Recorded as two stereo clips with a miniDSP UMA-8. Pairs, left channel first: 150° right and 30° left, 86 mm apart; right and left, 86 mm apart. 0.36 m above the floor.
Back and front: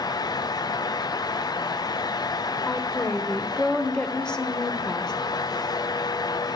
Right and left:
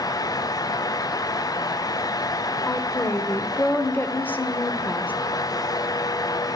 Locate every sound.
2.7 s a woman speaking: 85° right, 0.8 m